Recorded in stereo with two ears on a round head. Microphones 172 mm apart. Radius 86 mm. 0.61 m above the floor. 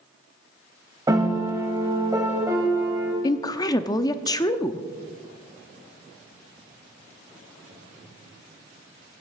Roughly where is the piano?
Centre.